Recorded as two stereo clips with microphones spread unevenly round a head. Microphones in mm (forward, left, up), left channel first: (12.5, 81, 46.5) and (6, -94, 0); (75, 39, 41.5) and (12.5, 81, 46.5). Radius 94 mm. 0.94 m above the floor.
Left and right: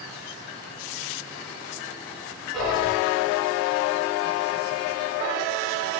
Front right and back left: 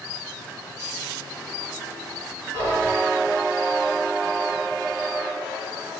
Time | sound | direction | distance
2.5 | whispering | 170° right | 1.7 m